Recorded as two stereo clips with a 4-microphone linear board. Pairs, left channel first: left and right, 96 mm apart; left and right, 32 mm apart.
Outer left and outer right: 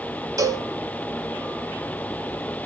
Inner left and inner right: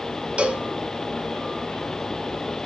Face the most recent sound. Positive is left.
turn(degrees=-35)  # may be behind; listen again after turning